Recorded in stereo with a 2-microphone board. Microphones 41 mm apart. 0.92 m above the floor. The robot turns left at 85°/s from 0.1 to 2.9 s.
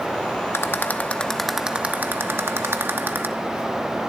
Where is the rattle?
75° left (ahead or behind), 1.0 m; by 3.3 s 60° right (ahead or behind), 1.0 m.